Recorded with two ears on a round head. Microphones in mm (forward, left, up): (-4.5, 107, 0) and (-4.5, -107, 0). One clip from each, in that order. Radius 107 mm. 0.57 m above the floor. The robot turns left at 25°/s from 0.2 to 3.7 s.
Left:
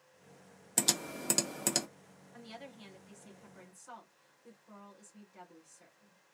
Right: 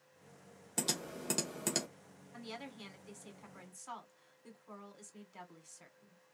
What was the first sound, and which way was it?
Typing on a keyboard, 30° left (ahead or behind).